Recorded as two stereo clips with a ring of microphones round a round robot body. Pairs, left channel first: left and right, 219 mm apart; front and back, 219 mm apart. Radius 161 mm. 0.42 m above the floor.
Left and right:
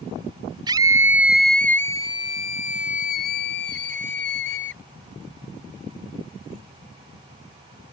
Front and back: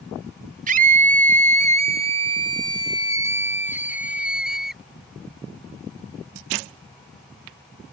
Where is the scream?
155° right; by 4.8 s 90° left.